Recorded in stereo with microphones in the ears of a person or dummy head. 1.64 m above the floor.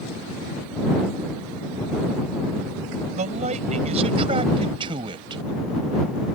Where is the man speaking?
40° right (ahead or behind); by 5.4 s 25° right (ahead or behind).